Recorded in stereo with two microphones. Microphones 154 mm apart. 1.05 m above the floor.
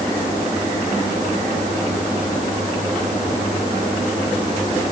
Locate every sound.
Only background noise.